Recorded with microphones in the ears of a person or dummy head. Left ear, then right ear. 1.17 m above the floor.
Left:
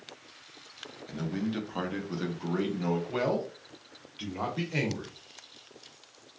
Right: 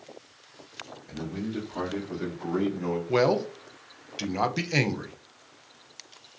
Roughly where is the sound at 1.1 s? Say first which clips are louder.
Left 1 dB; left.